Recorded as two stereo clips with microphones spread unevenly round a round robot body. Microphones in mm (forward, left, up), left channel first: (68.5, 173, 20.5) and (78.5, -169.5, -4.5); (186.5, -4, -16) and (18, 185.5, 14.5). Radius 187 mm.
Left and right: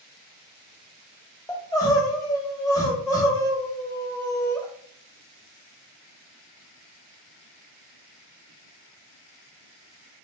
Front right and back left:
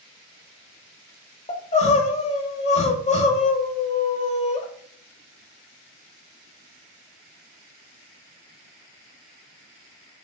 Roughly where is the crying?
Ahead.